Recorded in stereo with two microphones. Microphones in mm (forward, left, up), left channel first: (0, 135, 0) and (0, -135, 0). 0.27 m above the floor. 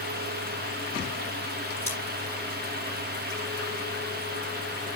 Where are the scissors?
10° left (ahead or behind), 9 m.